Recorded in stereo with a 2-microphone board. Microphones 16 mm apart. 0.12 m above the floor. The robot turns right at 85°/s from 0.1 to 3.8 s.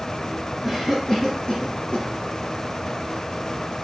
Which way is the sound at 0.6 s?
15° right (ahead or behind).